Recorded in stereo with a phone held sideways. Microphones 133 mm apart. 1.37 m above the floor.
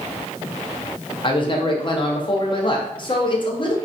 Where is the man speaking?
40° left (ahead or behind), 0.6 m.